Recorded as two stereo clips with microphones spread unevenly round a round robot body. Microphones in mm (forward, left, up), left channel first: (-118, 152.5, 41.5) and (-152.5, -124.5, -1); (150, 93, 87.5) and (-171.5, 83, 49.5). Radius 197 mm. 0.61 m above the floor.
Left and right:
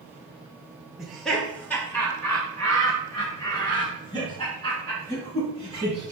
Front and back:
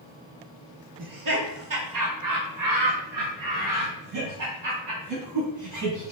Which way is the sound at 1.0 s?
Straight behind.